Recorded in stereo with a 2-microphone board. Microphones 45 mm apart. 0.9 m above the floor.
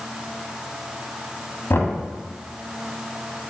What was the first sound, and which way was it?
Knocking, 65° left (ahead or behind).